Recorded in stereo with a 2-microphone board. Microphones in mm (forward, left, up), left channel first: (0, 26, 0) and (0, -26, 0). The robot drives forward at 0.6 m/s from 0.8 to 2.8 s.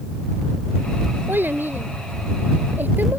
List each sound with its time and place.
1.3 s a child speaking: 45° right (ahead or behind); by 3.2 s 40° right (ahead or behind)